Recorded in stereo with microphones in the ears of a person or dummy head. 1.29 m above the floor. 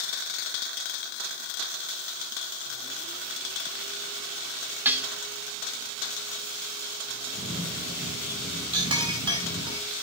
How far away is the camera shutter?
About 2 m.